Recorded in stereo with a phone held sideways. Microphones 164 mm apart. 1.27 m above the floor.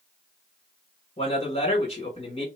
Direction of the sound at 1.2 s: 40° left (ahead or behind).